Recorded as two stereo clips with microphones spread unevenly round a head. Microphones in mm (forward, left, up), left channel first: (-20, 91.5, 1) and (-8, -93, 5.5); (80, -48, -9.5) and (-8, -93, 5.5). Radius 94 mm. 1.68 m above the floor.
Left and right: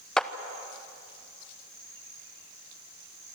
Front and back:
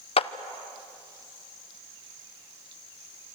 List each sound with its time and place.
0.2 s a clap: 5° left, 0.8 m